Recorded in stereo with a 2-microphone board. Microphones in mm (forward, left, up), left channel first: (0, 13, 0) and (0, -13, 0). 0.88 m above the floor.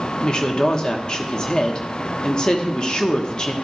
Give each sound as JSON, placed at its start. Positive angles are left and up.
{"t": 0.2, "sound": "a woman speaking", "side_deg": 35, "distance_m": 1.3}